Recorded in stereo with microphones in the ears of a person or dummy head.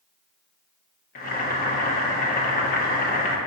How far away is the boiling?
About 1.1 m.